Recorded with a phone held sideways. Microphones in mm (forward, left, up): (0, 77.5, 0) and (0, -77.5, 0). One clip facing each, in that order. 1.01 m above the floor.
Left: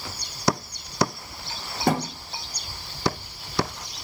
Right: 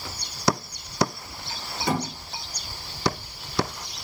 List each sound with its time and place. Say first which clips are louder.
1.9 s a thud: left 3 dB; 55° left (ahead or behind), 0.9 m